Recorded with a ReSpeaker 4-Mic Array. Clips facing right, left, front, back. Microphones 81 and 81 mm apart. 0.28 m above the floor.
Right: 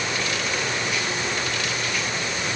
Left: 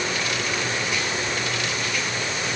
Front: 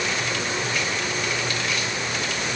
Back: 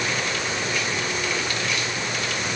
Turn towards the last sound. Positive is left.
No sound to turn to.